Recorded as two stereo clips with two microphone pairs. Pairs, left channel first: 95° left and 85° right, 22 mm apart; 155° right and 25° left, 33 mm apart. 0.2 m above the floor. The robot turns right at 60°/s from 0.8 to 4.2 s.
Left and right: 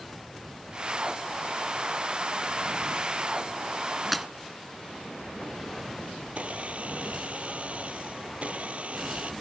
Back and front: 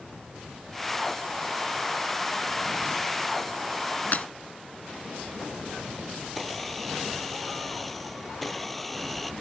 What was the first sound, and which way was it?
Breaking glass, straight behind.